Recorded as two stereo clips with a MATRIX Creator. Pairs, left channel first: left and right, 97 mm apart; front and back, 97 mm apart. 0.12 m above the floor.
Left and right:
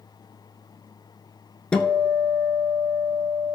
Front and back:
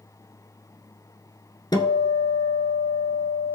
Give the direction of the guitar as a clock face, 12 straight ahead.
11 o'clock.